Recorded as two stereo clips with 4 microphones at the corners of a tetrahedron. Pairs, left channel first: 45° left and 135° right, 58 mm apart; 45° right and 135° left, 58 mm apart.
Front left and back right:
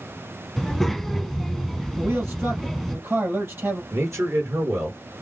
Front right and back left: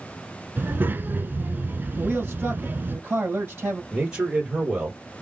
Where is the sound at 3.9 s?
155° right, 3 m.